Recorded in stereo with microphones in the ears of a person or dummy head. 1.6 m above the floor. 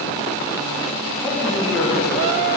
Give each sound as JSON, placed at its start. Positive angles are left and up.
{"t": 1.2, "sound": "a man speaking", "side_deg": 5, "distance_m": 4.0}